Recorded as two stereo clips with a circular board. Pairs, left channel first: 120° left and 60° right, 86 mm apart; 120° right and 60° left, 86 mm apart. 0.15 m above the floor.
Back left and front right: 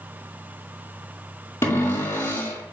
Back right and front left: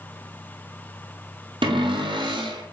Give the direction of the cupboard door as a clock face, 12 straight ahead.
10 o'clock.